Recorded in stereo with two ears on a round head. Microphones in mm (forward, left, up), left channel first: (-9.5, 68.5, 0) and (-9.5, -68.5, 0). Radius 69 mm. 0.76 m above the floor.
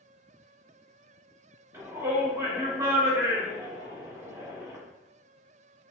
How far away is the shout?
About 1.5 m.